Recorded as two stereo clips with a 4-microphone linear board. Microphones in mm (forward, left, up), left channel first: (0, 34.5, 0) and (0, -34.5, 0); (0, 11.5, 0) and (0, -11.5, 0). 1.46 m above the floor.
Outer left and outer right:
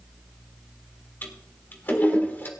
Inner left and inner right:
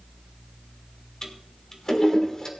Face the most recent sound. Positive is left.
turn(degrees=30)  # may be behind; listen again after turning